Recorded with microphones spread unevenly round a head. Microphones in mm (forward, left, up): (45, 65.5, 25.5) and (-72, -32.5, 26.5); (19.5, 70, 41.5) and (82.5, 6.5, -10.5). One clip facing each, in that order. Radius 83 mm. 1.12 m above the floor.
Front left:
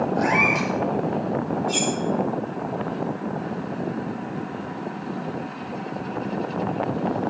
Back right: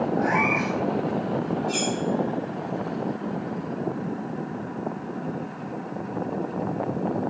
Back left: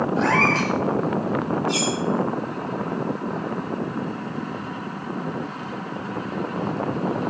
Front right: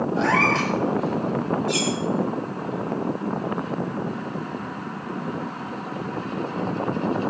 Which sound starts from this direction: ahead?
A cat meowing, at 0.2 s.